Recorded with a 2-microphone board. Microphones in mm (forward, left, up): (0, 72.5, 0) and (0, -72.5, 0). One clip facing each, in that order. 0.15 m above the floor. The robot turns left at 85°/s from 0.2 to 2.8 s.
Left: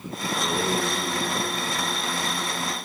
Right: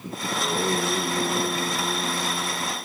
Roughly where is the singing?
Ahead left.